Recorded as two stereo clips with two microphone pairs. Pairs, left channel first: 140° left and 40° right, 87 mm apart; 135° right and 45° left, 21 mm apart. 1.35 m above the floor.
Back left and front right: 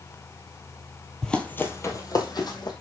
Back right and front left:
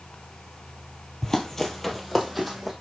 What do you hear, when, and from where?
1.2 s running footsteps: 140° right, 1.5 m; by 2.7 s 130° left, 2.5 m